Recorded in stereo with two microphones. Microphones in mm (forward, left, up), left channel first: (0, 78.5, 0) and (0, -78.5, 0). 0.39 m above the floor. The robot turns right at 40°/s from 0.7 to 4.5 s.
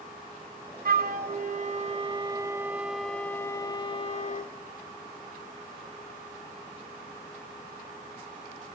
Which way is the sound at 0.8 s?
85° right.